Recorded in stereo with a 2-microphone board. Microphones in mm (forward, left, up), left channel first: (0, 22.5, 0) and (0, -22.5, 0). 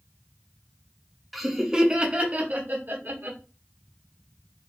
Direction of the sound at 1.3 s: Centre (ahead or behind).